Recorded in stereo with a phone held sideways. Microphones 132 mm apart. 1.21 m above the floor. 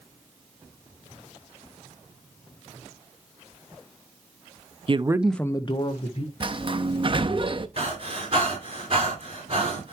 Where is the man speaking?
45° right (ahead or behind), 0.7 m; by 6.3 s 55° left (ahead or behind), 1.3 m.